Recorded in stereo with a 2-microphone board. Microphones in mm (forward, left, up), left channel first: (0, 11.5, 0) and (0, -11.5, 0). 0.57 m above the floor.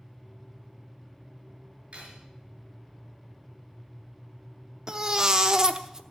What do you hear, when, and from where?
1.9 s cutlery clinking: 50° right (ahead or behind), 5.5 m
4.9 s a baby crying: 30° right (ahead or behind), 0.8 m